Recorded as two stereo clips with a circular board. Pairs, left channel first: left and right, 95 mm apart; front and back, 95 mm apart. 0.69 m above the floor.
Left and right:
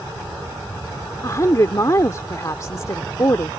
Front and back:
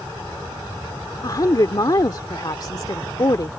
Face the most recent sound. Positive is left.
turn(degrees=40)